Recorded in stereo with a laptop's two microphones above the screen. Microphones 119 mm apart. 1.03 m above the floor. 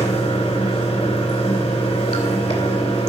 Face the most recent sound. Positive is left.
turn(degrees=65)  # may be behind; listen again after turning